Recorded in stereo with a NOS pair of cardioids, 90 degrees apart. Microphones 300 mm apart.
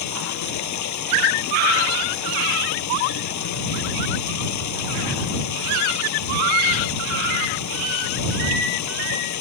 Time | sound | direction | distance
0.0 | running water | 70° left | ?